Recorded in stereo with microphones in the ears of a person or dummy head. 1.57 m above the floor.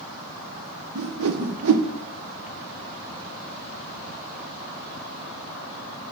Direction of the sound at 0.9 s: 80° right.